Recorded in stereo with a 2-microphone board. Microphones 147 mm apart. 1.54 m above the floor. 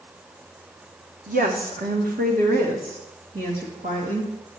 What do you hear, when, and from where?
1.3 s a woman speaking: 75° right (ahead or behind), 1.5 m; by 4.3 s 70° right (ahead or behind), 3 m